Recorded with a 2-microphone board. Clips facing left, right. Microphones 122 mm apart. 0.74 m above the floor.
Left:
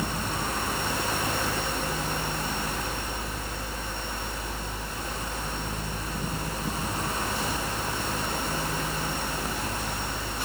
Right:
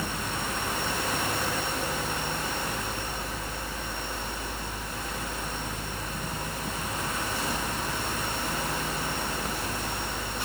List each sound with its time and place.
Only background noise.